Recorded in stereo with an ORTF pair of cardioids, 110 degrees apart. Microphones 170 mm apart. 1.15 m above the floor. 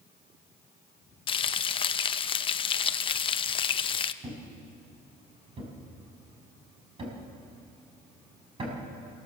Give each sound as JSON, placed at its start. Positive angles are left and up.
{"t": 1.3, "sound": "frying", "azimuth_deg": 35, "distance_m": 0.7}
{"t": 4.2, "sound": "a thud", "azimuth_deg": -35, "distance_m": 4.5}